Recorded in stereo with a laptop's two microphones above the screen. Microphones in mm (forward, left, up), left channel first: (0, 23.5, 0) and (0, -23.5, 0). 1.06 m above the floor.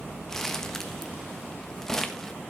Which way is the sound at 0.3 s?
10° left (ahead or behind).